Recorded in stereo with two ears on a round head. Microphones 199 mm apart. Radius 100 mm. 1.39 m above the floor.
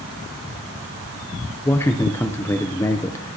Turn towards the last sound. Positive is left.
turn(degrees=10)  # may be behind; listen again after turning